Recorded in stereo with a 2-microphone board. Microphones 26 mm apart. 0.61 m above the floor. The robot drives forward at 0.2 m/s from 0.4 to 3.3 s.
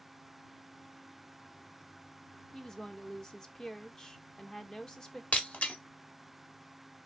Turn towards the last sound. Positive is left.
turn(degrees=65)  # may be behind; listen again after turning